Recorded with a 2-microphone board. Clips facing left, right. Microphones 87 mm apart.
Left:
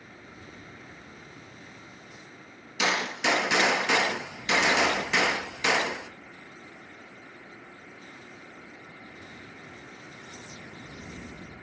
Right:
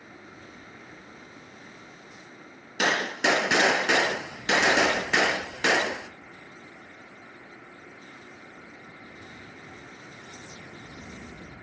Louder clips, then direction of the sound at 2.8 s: Right 2 dB; 50° right (ahead or behind).